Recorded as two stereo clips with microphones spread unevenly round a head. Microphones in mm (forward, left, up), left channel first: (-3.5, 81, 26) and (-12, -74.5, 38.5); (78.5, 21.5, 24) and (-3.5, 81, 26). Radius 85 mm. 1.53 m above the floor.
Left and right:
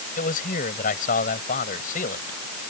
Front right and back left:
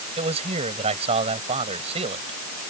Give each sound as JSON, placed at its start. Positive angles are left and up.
{"t": 0.2, "sound": "a man speaking", "azimuth_deg": 125}